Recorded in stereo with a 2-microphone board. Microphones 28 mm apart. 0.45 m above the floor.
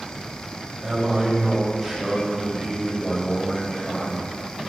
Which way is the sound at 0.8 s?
20° right (ahead or behind).